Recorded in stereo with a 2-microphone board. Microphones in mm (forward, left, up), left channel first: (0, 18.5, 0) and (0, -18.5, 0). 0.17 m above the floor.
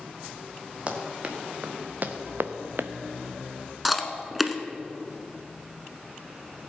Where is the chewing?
Centre (ahead or behind), 0.9 m.